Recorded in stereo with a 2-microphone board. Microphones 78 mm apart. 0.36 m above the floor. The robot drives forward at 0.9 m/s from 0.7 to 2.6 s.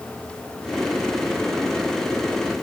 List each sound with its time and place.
Only background noise.